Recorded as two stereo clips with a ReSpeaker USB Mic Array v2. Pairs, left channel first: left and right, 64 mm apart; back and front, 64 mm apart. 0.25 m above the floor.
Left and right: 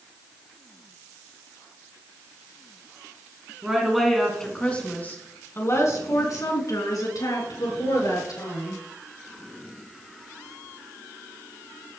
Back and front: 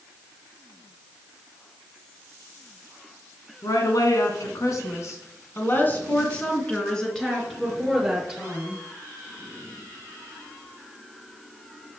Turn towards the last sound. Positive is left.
turn(degrees=85)